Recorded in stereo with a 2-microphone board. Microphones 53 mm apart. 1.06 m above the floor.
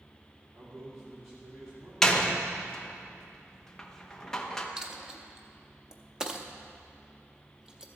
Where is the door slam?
10° left (ahead or behind), 0.8 m.